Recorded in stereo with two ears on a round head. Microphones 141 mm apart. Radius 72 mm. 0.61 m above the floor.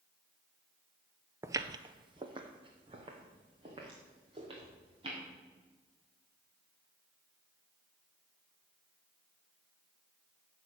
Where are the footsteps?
15° right (ahead or behind), 0.6 m; by 5.2 s 30° right (ahead or behind), 5.5 m.